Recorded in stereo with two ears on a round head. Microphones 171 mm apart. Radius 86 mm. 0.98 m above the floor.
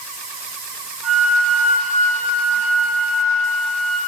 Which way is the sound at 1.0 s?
5° left (ahead or behind).